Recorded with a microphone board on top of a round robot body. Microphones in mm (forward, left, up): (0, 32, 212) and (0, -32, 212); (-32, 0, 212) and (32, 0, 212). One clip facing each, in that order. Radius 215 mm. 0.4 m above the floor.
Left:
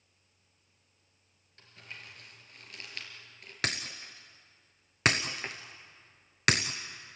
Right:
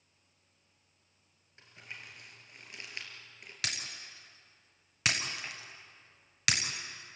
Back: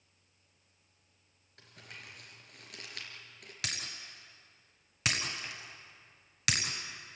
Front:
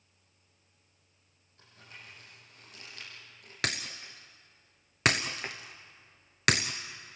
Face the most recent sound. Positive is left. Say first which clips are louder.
# left 5 dB, front 7 dB
turn(degrees=40)